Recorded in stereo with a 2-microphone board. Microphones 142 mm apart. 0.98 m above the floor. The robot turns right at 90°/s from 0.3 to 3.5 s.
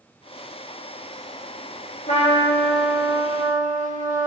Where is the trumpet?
120° left, 1.1 m; by 4.3 s 110° right, 1.1 m.